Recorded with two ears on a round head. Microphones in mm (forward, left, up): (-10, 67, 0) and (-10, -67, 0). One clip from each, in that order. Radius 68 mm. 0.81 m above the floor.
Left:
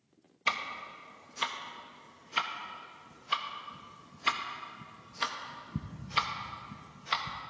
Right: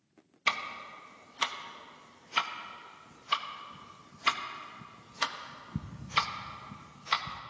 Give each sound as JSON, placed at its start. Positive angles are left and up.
{"t": 0.5, "sound": "ticking", "side_deg": -15, "distance_m": 0.6}